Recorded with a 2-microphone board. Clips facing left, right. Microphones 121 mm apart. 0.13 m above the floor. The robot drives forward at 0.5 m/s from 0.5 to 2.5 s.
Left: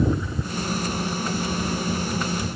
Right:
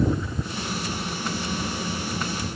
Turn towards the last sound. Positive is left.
No sound to turn to.